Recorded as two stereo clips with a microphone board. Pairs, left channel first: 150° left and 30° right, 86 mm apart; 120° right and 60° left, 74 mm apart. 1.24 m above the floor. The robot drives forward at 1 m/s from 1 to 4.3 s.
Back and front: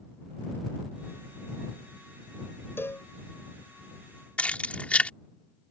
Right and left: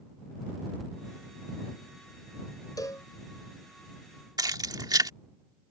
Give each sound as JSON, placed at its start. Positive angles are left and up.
{"t": 2.8, "sound": "a cowbell", "azimuth_deg": -150}
{"t": 4.4, "sound": "keys jangling", "azimuth_deg": 75}